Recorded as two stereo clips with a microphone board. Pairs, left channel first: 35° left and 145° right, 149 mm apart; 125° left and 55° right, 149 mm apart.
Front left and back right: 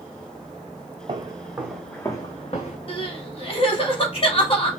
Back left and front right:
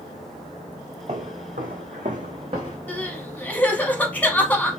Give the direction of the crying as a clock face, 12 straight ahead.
10 o'clock.